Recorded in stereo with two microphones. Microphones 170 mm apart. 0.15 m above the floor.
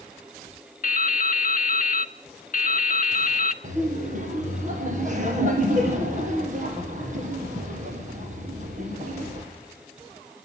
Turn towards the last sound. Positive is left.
turn(degrees=-50)  # may be behind; listen again after turning